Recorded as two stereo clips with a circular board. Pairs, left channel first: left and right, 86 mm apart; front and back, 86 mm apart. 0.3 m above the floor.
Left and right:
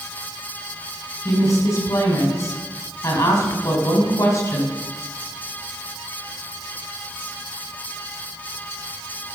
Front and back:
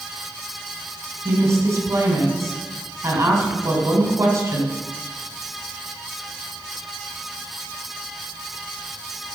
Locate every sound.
1.2 s a woman speaking: 135° left, 2.5 m